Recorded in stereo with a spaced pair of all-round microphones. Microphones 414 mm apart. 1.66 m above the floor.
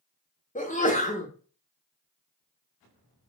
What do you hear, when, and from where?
0.6 s a sneeze: 20° left (ahead or behind), 1.1 m